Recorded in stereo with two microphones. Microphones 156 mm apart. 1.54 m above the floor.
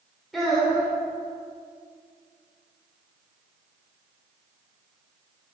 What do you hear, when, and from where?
0.3 s a child speaking: centre (ahead or behind), 3 m